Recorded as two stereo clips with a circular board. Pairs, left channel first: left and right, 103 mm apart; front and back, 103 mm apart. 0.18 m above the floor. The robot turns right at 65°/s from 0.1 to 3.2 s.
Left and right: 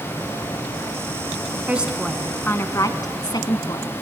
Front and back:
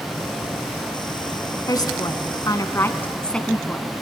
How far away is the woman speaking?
About 1.6 m.